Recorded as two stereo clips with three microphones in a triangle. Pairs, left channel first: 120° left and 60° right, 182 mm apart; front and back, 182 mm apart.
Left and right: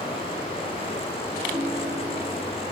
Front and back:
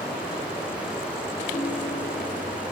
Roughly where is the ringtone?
Ahead.